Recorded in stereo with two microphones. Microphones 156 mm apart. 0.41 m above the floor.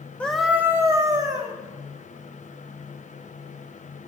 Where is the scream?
10° left (ahead or behind), 0.7 m; by 1.5 s 25° right (ahead or behind), 2 m.